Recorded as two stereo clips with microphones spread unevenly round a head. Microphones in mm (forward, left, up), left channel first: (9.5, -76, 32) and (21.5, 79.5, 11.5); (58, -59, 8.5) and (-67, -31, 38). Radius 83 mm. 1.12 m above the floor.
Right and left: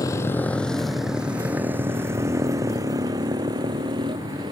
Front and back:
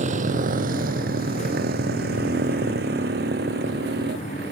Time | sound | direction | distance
0.0 | a motorcycle | 165° right | ?